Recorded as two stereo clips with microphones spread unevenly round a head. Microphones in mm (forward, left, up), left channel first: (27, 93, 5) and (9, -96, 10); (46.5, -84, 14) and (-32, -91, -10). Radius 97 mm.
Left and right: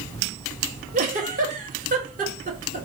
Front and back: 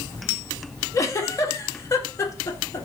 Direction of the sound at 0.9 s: 45° right.